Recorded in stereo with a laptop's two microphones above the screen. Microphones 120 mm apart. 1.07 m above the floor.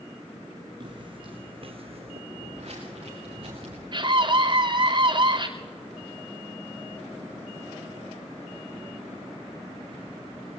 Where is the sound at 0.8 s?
40° right (ahead or behind), 3 m; by 2.2 s 60° right (ahead or behind), 2.5 m.